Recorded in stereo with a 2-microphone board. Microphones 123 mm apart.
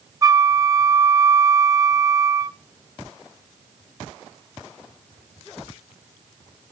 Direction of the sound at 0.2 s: 25° right (ahead or behind).